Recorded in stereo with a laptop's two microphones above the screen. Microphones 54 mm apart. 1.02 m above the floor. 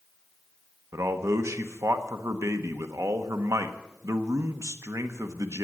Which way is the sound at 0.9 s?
65° right (ahead or behind).